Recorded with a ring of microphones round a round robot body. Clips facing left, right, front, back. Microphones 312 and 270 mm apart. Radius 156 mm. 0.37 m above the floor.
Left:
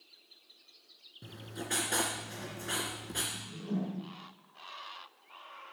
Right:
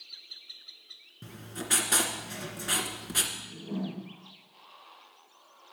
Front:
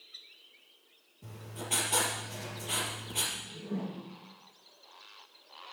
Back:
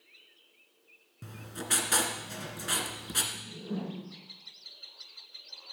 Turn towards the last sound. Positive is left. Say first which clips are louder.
# left 1 dB, back 1 dB
turn(degrees=145)